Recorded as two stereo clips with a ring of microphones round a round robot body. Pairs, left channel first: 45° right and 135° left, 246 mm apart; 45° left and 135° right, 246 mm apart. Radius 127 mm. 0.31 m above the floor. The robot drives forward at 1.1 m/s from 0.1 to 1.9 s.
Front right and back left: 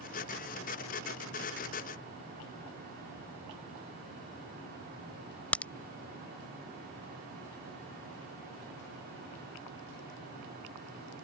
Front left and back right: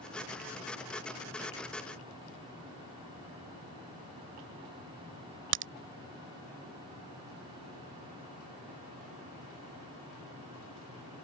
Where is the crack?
130° right.